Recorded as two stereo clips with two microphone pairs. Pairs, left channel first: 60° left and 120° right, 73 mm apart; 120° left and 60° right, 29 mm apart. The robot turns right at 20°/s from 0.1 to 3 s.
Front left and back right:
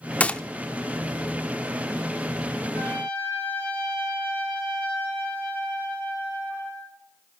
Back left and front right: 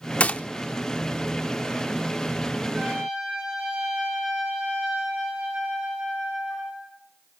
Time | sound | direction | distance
0.2 | a gunshot | 125° left | 0.5 m
2.7 | a trumpet | 5° right | 7.5 m